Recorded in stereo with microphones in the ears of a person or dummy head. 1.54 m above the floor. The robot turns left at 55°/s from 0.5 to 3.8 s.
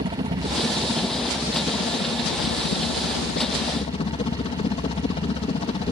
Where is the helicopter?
145° right; by 5.9 s 35° left.